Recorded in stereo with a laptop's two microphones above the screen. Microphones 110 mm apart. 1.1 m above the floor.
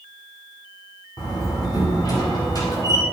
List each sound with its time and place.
1.2 s a door slam: 35° left (ahead or behind), 6 m